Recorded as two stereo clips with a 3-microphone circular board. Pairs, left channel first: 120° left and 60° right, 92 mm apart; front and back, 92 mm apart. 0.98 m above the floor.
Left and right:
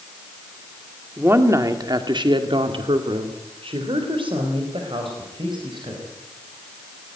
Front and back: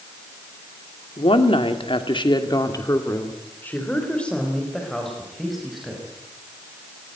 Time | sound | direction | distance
1.2 | a woman speaking | 5° left | 2.5 m